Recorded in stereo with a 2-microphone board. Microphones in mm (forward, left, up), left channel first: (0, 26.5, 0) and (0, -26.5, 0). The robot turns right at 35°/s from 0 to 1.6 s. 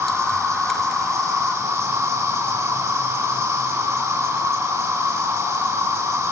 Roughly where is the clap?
I don't hear a clap.